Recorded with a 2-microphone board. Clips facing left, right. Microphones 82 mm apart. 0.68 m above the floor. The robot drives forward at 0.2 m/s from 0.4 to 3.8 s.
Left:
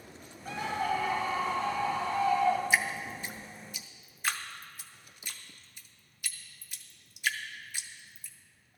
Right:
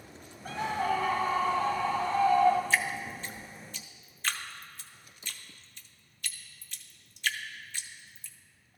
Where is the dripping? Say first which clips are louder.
Even; 15° left (ahead or behind), 0.5 m; by 8.3 s 10° left (ahead or behind), 0.7 m.